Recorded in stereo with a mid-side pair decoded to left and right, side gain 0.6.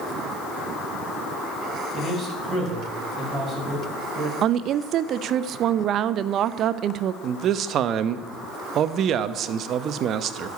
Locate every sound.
1.9 s a man speaking: 25° right, 5.5 m
4.4 s a woman speaking: 55° right, 0.6 m
7.2 s a man speaking: 50° right, 0.9 m